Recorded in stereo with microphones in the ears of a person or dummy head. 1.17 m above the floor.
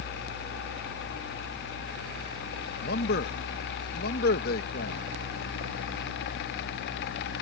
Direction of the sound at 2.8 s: 60° left (ahead or behind).